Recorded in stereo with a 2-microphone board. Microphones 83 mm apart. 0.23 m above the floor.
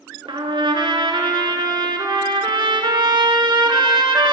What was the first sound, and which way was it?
A trumpet, 75° right (ahead or behind).